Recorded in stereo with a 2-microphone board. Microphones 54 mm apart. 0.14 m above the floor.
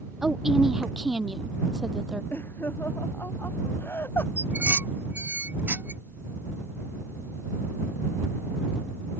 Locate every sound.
0.2 s a woman speaking: 5° right (ahead or behind)
2.3 s laughter: 45° left (ahead or behind)
4.4 s dishes clattering: 35° right (ahead or behind)